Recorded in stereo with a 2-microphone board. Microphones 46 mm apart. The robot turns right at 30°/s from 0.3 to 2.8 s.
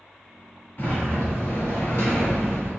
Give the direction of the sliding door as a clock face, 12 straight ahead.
10 o'clock.